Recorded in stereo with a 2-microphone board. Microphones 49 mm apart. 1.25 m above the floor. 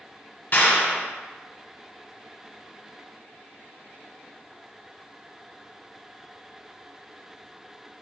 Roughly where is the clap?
Left.